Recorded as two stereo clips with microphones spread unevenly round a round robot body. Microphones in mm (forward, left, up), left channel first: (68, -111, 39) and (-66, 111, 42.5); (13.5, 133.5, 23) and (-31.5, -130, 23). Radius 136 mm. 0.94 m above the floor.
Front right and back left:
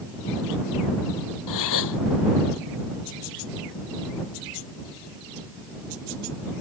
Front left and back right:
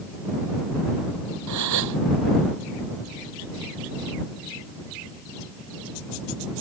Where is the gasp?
70° right.